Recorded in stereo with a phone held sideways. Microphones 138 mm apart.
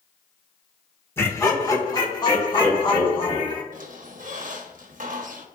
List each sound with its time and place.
1.2 s laughter: 15° left (ahead or behind), 1.4 m; by 3.6 s 40° left (ahead or behind), 4 m
3.7 s a squeak: 65° right (ahead or behind), 1.0 m